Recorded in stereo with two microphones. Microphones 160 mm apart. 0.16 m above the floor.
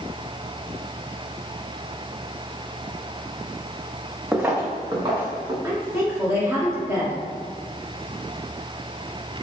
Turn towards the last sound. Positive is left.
turn(degrees=-15)  # may be behind; listen again after turning